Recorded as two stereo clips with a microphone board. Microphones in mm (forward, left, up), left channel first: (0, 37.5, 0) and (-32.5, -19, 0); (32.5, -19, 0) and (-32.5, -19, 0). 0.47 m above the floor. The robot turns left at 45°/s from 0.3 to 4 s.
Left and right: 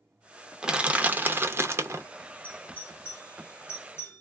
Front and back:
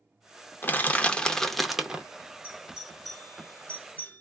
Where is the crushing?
45° right, 0.6 m; by 2.0 s 110° right, 0.6 m.